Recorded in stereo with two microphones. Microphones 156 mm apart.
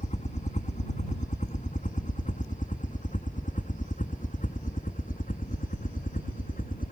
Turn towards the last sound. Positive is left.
turn(degrees=60)  # may be behind; listen again after turning